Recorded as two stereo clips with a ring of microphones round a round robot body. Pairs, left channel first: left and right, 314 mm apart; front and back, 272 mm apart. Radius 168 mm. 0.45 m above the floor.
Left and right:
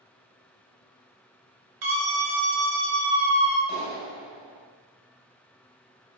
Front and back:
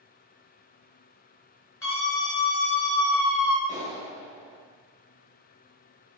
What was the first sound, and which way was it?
A scream, 80° right.